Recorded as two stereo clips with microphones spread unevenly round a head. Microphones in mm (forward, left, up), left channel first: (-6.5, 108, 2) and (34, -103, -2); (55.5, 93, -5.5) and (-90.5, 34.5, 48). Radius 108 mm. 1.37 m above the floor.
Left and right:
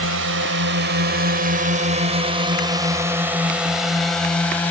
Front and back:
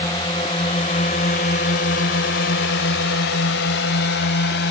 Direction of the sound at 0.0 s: 55° right.